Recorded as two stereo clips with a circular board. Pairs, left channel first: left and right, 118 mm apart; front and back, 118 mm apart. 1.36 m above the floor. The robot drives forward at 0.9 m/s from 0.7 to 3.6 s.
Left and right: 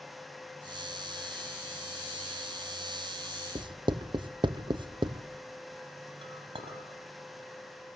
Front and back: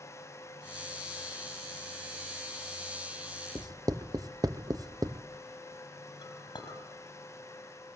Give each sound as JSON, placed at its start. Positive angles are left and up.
{"t": 3.5, "sound": "writing", "azimuth_deg": -125, "distance_m": 0.6}
{"t": 6.2, "sound": "a clink", "azimuth_deg": -50, "distance_m": 4.5}